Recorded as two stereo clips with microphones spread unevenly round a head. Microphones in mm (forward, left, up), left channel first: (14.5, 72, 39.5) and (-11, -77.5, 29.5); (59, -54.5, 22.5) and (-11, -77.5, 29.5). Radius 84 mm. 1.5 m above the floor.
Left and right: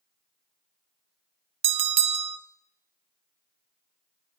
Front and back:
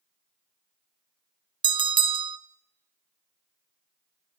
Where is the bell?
155° right, 0.5 m.